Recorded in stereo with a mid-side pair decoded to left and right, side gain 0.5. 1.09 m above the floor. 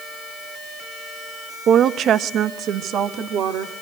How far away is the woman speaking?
About 0.5 m.